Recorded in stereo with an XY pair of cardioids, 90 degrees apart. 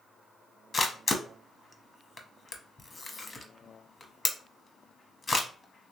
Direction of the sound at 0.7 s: 40° left.